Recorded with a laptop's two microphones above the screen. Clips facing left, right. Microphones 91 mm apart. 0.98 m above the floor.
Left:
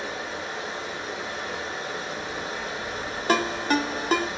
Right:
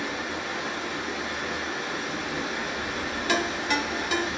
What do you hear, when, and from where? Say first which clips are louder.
0.0 s running water: right 1 dB; 85° right, 1.1 m
3.3 s a ringtone: left 4 dB; 40° left (ahead or behind), 0.5 m